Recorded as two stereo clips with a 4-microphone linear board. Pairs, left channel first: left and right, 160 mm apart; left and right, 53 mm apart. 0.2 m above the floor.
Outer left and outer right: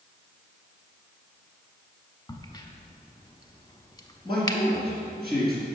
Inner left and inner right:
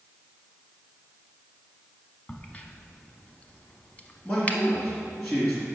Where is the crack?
25° left (ahead or behind), 0.6 m.